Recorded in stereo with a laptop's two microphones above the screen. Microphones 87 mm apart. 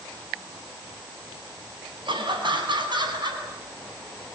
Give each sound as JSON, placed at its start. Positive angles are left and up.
{"t": 2.0, "sound": "laughter", "side_deg": -70, "distance_m": 8.0}